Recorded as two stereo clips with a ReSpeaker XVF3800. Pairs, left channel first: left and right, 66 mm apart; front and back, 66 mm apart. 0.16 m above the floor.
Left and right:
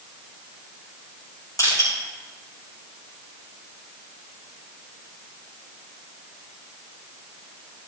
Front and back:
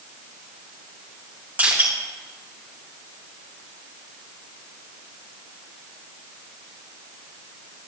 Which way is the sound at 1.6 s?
110° left.